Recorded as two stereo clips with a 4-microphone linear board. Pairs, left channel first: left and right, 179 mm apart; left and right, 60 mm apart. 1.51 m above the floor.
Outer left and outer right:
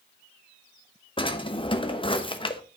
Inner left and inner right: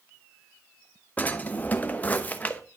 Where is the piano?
No piano in this recording.